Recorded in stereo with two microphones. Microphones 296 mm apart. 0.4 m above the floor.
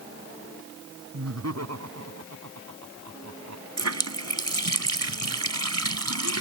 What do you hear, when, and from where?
1.1 s laughter: 60° right (ahead or behind); by 3.6 s 70° right (ahead or behind)
3.8 s a running tap: 65° right (ahead or behind)